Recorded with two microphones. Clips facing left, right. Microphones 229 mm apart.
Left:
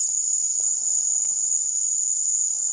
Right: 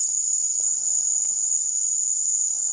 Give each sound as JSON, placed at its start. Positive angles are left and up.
{"t": 0.0, "sound": "an insect", "side_deg": 10, "distance_m": 1.6}